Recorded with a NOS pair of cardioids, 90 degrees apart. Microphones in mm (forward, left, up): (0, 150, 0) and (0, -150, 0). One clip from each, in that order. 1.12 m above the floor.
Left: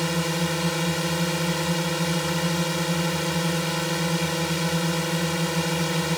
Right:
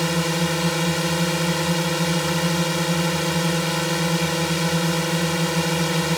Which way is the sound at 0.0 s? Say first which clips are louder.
Right 3 dB; 25° right.